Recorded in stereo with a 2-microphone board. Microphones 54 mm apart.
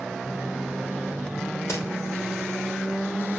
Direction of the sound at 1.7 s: 70° left (ahead or behind).